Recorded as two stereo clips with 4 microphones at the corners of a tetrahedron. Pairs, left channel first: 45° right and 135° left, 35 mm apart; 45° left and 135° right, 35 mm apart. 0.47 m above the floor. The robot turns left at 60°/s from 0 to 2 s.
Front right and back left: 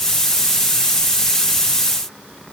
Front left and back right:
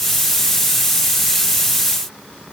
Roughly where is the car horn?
No car horn in this recording.